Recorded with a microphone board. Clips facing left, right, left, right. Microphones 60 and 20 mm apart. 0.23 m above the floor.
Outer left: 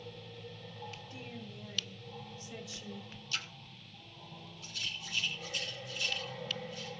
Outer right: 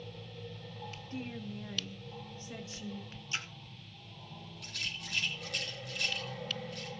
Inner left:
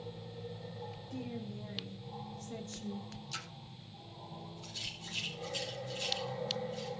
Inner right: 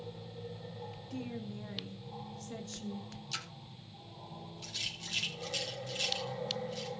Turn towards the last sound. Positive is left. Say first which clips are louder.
# outer right 1 dB, inner right 4 dB
turn(degrees=-70)  # may be behind; listen again after turning